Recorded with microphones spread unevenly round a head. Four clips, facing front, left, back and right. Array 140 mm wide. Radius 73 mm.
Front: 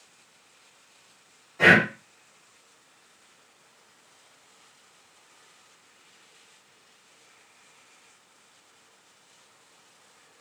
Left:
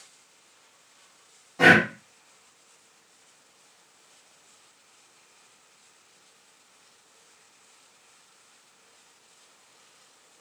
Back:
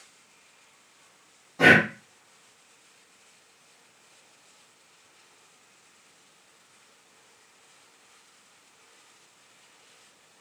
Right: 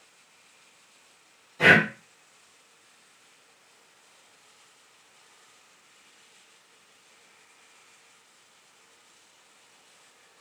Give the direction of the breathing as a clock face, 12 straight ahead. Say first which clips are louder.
Left 2 dB, back 1 dB; 8 o'clock.